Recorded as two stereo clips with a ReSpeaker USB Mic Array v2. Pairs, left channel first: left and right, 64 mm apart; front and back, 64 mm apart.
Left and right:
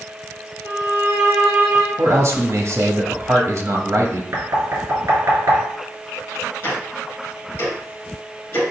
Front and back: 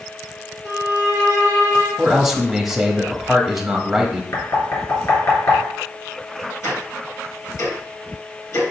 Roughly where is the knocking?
Ahead right.